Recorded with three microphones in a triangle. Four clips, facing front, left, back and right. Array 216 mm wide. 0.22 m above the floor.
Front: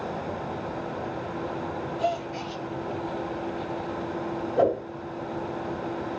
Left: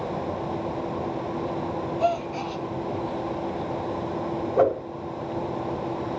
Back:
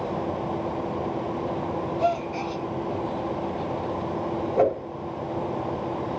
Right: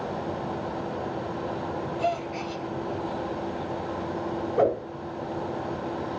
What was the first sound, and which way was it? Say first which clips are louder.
A gasp: left 4 dB, back 3 dB; 135° left.